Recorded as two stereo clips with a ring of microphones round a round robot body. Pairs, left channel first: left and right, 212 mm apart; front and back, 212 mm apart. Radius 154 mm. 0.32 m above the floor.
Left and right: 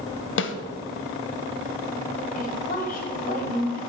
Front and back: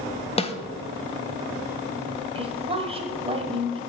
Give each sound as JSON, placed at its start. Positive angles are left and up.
{"t": 0.4, "sound": "a snare drum", "azimuth_deg": 65, "distance_m": 0.7}
{"t": 2.4, "sound": "a woman speaking", "azimuth_deg": 125, "distance_m": 1.6}